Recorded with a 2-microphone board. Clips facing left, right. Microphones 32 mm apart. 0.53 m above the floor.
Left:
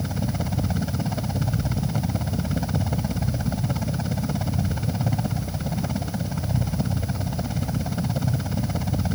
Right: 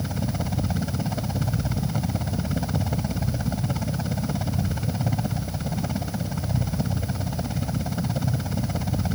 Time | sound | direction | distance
0.0 | a helicopter | centre (ahead or behind) | ?